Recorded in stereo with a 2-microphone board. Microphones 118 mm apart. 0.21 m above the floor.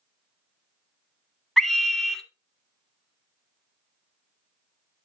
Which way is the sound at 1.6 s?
5° left (ahead or behind).